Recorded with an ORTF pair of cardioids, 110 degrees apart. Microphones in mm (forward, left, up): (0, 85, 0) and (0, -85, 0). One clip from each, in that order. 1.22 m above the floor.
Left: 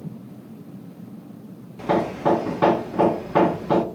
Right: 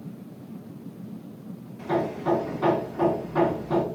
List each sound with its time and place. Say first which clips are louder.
1.8 s hammering: left 5 dB; 65° left, 0.7 m